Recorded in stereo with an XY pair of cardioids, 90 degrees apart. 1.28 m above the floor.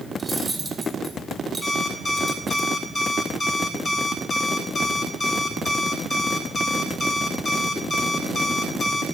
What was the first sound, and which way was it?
Cutlery clinking, 5° right.